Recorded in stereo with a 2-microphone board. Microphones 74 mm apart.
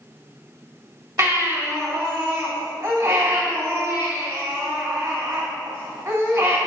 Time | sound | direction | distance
1.2 | a baby crying | 45° right (ahead or behind) | 3 m